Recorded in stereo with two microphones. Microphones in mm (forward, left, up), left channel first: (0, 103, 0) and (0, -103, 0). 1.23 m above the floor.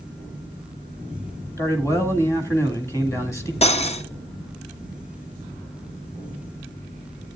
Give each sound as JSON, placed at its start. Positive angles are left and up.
{"t": 1.6, "sound": "a man speaking", "side_deg": 15, "distance_m": 2.0}
{"t": 3.6, "sound": "cutlery clinking", "side_deg": 35, "distance_m": 0.7}